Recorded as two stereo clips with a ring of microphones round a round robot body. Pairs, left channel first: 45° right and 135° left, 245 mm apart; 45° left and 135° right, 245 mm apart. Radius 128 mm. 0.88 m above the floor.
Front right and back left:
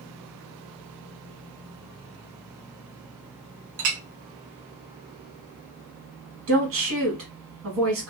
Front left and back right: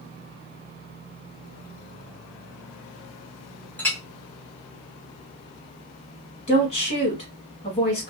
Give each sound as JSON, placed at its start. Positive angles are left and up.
{"t": 3.8, "sound": "a clink", "azimuth_deg": 130, "distance_m": 0.7}
{"t": 6.5, "sound": "a woman speaking", "azimuth_deg": 110, "distance_m": 1.8}